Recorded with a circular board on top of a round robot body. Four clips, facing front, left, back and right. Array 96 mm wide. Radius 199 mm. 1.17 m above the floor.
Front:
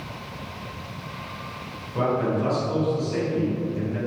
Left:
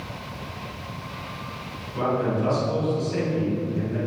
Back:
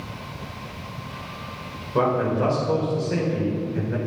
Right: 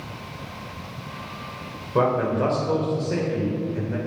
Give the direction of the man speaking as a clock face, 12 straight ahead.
4 o'clock.